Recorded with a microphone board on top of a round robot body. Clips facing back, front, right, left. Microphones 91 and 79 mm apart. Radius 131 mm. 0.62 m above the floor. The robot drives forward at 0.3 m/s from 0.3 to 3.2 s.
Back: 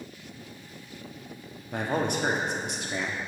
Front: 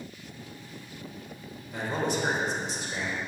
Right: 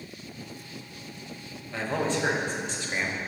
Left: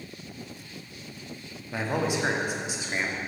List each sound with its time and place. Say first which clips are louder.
1.7 s a man speaking: back 2 dB, even; 165° left, 1.5 m; by 3.2 s 170° left, 1.9 m